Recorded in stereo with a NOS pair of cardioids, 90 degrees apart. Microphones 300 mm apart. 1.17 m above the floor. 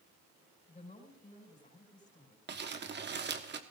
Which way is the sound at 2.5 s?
35° right.